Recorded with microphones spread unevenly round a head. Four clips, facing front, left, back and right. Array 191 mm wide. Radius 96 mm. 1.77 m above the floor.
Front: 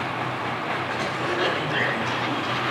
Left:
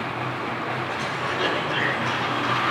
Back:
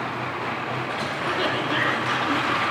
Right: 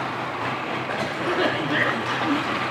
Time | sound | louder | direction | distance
0.9 | a cough | right 2 dB, front 1 dB | 100° right | 5.5 m